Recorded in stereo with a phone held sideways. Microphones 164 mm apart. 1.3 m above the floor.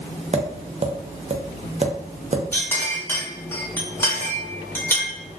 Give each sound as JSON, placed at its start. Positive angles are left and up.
{"t": 0.3, "sound": "tapping", "side_deg": -45, "distance_m": 0.6}
{"t": 2.5, "sound": "a clink", "side_deg": 15, "distance_m": 1.0}